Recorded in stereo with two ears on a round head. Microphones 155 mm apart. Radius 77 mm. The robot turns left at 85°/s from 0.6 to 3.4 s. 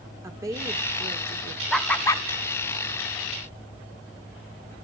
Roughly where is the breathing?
No breathing in this recording.